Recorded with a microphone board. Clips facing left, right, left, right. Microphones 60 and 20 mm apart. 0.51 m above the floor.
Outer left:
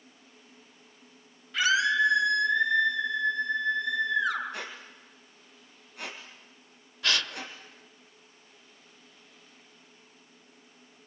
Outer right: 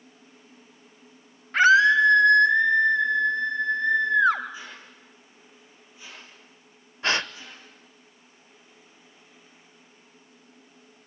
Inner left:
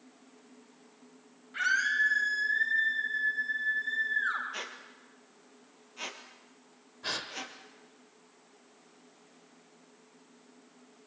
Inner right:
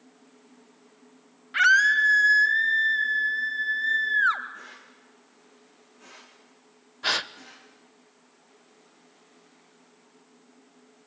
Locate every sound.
1.5 s a scream: 45° right (ahead or behind), 2.5 m
4.5 s a squeak: 65° left (ahead or behind), 3 m
7.0 s a gasp: 30° right (ahead or behind), 0.7 m